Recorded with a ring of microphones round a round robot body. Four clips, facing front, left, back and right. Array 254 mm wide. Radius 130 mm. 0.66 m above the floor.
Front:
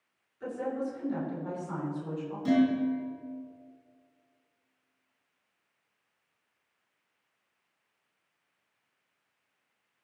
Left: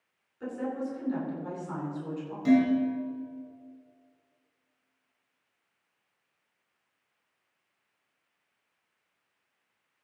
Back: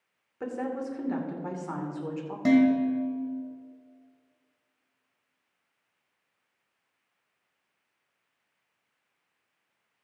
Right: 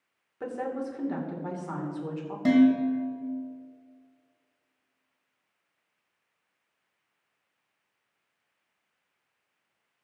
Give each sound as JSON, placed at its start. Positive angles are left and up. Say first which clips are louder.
{"t": 0.4, "sound": "a woman speaking", "louder": "right 1 dB, back 1 dB", "azimuth_deg": -140, "distance_m": 3.0}
{"t": 2.5, "sound": "dishes clattering", "louder": "right 3 dB, back 4 dB", "azimuth_deg": -140, "distance_m": 2.5}